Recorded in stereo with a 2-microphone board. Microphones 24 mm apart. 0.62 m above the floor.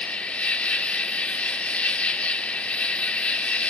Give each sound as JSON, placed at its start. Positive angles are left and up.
{"t": 0.0, "sound": "an insect", "side_deg": 65, "distance_m": 0.7}